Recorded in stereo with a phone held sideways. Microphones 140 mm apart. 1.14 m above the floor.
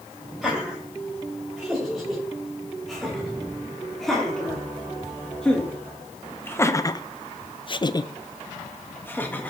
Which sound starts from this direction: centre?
Laughter, at 0.4 s.